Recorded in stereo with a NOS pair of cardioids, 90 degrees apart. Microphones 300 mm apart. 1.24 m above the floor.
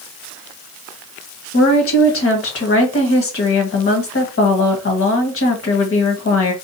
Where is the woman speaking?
45° left, 1.6 m.